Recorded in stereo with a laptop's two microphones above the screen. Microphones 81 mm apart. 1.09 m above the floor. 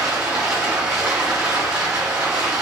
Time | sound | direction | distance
0.0 | running water | 10° right (ahead or behind) | 1.4 m